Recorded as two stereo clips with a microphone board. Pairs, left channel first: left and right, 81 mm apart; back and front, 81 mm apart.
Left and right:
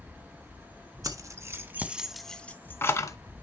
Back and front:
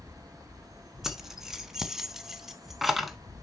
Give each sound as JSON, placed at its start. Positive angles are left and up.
{"t": 1.0, "sound": "keys jangling", "azimuth_deg": -85, "distance_m": 1.0}